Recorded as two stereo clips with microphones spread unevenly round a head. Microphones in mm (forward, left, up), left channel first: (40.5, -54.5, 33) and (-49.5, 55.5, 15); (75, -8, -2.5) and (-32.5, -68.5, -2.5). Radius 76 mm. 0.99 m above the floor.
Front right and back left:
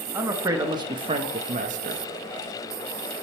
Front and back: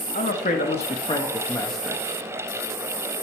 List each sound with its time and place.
0.1 s a man speaking: 55° left, 1.9 m; by 2.0 s 130° left, 1.5 m